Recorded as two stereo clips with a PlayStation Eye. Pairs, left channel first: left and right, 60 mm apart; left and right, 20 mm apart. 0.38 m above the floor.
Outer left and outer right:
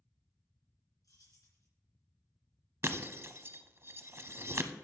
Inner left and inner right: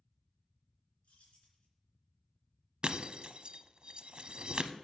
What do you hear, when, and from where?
1.0 s keys jangling: 80° left, 3 m
2.8 s breaking glass: 50° right (ahead or behind), 0.5 m